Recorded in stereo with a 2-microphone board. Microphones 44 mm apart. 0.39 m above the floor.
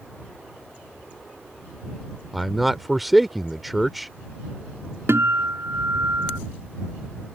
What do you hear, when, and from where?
2.3 s a man speaking: centre (ahead or behind)
5.1 s a guitar: 75° right (ahead or behind)